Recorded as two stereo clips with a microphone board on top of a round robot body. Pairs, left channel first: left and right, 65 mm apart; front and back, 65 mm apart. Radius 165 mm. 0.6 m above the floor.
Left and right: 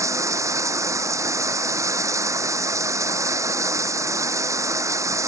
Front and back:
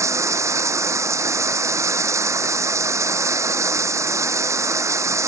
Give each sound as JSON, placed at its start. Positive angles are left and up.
{"t": 0.0, "sound": "running water", "azimuth_deg": -135}